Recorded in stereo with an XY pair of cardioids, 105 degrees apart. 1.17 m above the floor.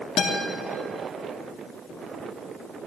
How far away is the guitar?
About 2 m.